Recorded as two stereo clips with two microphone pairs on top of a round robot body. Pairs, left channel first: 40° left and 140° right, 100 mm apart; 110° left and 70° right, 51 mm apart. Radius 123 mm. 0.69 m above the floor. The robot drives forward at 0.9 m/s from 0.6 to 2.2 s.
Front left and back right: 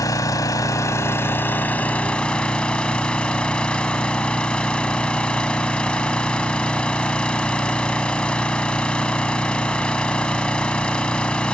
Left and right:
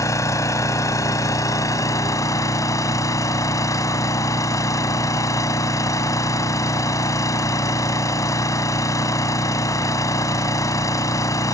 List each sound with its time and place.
0.0 s an engine running: 95° left; by 11.5 s 120° left